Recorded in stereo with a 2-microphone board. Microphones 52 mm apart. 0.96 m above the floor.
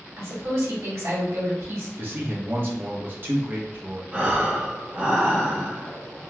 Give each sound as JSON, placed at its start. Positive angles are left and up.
{"t": 0.2, "sound": "a woman speaking", "side_deg": -65, "distance_m": 1.9}
{"t": 2.0, "sound": "a man speaking", "side_deg": -40, "distance_m": 0.9}
{"t": 4.1, "sound": "breathing", "side_deg": -30, "distance_m": 1.2}